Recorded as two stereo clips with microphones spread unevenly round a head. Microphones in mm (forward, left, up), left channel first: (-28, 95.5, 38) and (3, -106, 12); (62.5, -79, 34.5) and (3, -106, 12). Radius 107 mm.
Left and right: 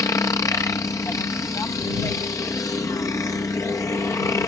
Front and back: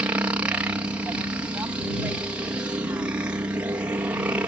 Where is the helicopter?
175° left.